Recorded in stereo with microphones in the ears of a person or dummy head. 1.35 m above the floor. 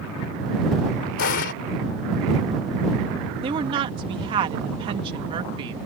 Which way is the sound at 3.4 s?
25° right (ahead or behind).